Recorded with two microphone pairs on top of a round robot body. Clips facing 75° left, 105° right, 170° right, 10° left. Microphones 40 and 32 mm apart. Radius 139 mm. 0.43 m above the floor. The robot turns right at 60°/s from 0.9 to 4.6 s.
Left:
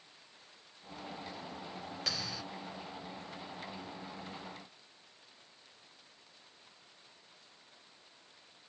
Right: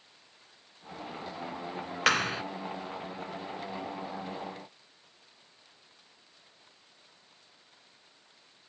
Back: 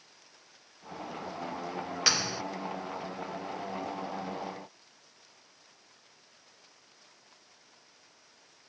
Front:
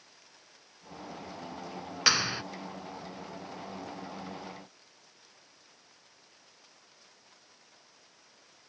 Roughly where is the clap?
Right.